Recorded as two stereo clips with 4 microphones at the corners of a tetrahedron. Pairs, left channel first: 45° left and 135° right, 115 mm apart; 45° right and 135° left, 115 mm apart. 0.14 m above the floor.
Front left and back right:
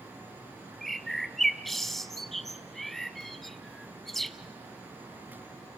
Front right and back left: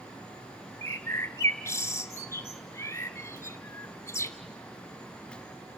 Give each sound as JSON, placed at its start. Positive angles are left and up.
{"t": 0.8, "sound": "a bird", "azimuth_deg": -40, "distance_m": 0.6}